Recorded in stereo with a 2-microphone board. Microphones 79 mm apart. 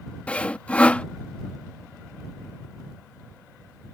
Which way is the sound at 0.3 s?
15° left (ahead or behind).